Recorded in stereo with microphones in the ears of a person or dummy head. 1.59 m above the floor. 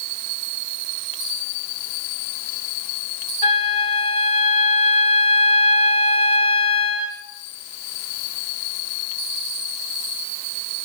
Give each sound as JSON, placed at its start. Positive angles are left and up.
{"t": 3.4, "sound": "a flute", "side_deg": 30, "distance_m": 0.5}